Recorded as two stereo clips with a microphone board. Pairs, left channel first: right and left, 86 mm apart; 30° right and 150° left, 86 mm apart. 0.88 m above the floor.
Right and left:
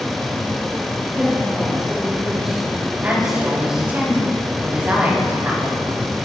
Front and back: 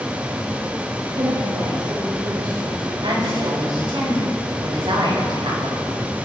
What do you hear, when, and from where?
1.1 s a woman speaking: 170° left, 3.5 m
3.0 s a woman speaking: 160° left, 6 m